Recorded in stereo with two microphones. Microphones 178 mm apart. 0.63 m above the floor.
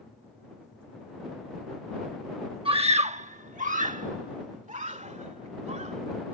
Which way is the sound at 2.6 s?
30° right (ahead or behind).